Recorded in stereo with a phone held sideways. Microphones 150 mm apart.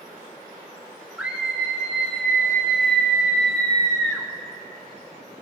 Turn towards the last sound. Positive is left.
turn(degrees=5)  # may be behind; listen again after turning